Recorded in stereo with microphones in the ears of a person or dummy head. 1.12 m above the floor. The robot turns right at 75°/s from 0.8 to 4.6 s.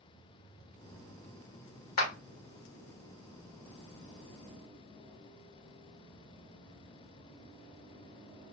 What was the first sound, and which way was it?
A clap, 45° left (ahead or behind).